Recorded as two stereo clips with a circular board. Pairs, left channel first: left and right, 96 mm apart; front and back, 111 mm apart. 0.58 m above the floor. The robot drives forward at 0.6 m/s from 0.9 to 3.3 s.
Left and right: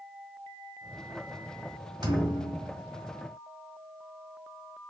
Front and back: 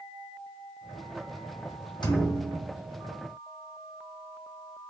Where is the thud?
50° right, 1.2 m; by 2.8 s 70° right, 1.0 m.